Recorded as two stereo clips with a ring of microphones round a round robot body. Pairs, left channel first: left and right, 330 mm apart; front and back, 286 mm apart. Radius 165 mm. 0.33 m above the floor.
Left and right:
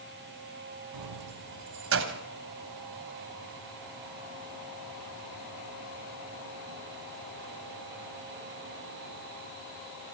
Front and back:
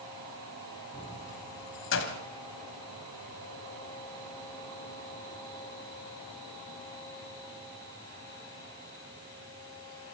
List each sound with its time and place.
0.9 s keys jangling: 75° right, 2 m; by 2.2 s 35° right, 1.6 m